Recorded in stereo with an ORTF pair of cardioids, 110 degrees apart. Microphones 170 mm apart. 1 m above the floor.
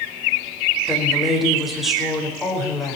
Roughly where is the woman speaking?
Ahead.